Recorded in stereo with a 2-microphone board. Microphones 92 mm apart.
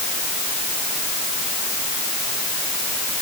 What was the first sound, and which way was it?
Only background noise.